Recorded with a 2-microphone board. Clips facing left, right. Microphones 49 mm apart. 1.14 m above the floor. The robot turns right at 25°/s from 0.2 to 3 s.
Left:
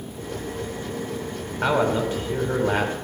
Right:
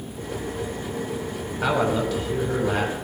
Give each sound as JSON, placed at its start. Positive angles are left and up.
{"t": 1.6, "sound": "a man speaking", "azimuth_deg": 20, "distance_m": 5.0}